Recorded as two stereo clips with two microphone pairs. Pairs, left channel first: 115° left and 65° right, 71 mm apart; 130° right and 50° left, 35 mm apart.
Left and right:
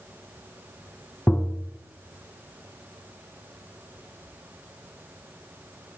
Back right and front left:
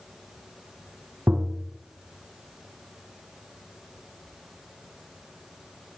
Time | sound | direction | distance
1.3 | tapping | 50° left | 1.1 m